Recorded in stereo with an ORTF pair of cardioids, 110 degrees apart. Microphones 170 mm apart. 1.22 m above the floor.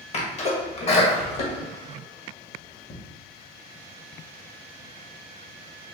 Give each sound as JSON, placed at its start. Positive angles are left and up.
{"t": 0.1, "sound": "a sneeze", "azimuth_deg": 40, "distance_m": 1.6}